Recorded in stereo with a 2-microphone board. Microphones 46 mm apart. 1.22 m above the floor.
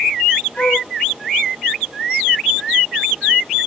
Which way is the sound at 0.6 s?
40° left (ahead or behind).